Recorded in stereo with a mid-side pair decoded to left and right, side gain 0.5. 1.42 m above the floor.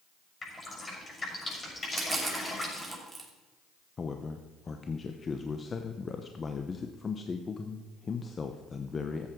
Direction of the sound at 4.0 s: 35° left.